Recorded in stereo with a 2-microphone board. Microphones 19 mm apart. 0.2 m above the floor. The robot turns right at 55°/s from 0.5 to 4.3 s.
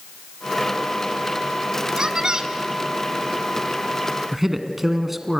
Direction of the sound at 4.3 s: 15° right (ahead or behind).